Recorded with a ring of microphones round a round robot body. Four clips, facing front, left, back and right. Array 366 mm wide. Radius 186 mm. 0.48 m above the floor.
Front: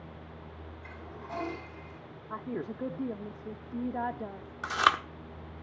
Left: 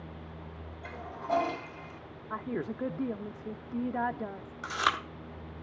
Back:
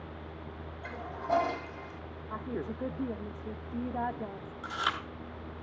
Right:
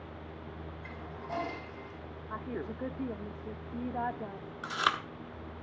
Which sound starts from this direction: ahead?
Chewing, at 4.6 s.